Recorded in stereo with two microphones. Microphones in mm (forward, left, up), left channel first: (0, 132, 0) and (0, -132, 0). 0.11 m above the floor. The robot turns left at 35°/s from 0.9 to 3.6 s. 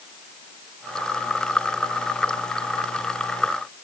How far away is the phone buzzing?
I don't hear a phone buzzing.